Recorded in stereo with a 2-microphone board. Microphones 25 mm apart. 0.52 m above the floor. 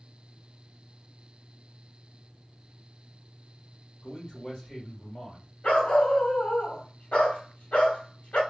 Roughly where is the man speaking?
Left.